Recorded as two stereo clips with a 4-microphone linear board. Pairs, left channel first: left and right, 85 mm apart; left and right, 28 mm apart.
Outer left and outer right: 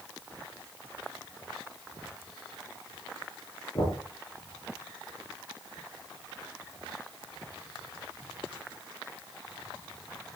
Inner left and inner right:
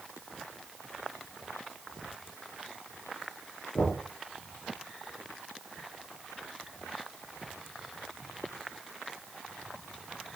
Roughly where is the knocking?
Left.